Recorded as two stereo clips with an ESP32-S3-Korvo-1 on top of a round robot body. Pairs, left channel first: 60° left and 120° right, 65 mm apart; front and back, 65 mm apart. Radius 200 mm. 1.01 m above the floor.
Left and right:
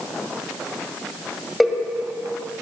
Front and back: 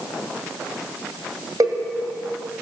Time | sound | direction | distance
1.6 | a cowbell | 150° left | 2.0 m